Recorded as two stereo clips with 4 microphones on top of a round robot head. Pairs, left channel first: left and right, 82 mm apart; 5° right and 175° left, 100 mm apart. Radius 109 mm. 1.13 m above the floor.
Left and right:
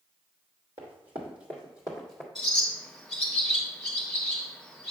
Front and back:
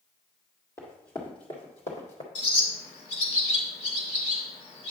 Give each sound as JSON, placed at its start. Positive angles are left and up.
{"t": 0.8, "sound": "running footsteps", "azimuth_deg": -75, "distance_m": 1.9}
{"t": 2.4, "sound": "a bird", "azimuth_deg": 0, "distance_m": 1.6}